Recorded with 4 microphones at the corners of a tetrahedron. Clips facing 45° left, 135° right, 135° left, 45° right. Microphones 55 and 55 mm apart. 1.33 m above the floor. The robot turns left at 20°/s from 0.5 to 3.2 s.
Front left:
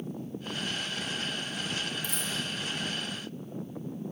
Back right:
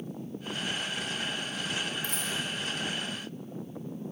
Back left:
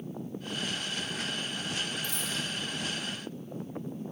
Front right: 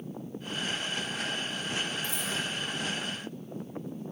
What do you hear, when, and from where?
2.0 s a dropped coin: 105° right, 4.5 m; by 2.3 s 110° right, 4.5 m